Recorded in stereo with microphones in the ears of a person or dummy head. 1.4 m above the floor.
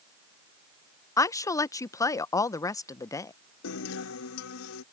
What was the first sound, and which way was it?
A woman speaking, 20° left (ahead or behind).